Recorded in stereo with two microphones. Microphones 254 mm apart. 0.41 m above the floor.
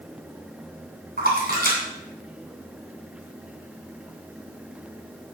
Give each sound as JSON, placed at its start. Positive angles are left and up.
{"t": 1.2, "sound": "a splash", "side_deg": -40, "distance_m": 2.5}